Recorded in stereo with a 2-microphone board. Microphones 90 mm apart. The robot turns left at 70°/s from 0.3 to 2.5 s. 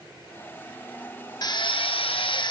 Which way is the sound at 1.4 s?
135° left.